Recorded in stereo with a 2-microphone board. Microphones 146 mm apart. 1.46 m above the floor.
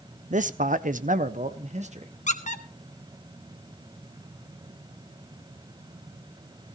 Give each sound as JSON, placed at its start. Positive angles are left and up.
{"t": 0.3, "sound": "a man speaking", "side_deg": -60, "distance_m": 0.8}
{"t": 2.3, "sound": "a squeak", "side_deg": 60, "distance_m": 1.3}